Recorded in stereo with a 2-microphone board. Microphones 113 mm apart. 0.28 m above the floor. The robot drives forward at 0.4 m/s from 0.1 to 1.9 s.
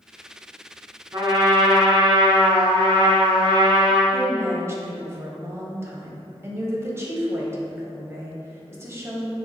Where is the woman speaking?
25° right (ahead or behind), 1.3 m.